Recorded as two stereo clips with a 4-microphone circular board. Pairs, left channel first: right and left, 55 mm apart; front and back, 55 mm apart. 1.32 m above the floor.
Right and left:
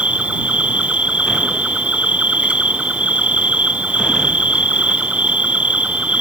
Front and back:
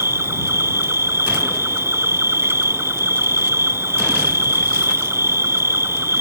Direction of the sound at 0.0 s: 155° left.